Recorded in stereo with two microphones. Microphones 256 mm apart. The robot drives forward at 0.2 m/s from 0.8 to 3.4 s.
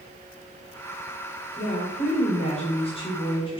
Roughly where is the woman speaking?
Left.